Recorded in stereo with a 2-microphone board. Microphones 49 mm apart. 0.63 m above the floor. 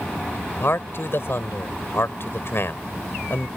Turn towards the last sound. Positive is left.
turn(degrees=60)  # may be behind; listen again after turning